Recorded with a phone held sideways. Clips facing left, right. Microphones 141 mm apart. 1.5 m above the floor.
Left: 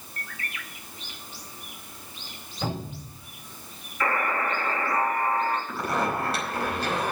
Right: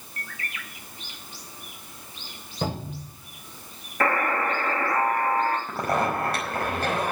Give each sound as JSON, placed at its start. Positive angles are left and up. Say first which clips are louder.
{"t": 2.6, "sound": "a cupboard door", "louder": "right 2 dB", "side_deg": -55, "distance_m": 6.0}
{"t": 4.0, "sound": "a buzzer", "louder": "right 3 dB", "side_deg": -65, "distance_m": 3.0}
{"t": 5.7, "sound": "a zipper", "louder": "right 2 dB", "side_deg": -55, "distance_m": 4.5}